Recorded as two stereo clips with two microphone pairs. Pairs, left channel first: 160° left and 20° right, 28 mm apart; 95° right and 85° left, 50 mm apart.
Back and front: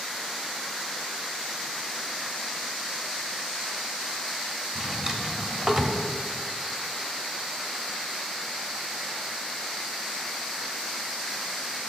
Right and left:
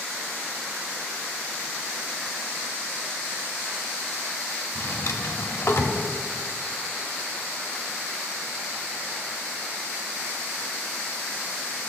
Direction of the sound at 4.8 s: 85° right.